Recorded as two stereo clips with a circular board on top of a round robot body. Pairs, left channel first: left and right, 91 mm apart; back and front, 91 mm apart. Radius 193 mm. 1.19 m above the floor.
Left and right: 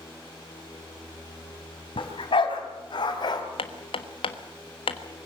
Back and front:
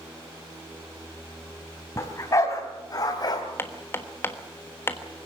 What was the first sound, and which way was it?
A dog barking, 120° left.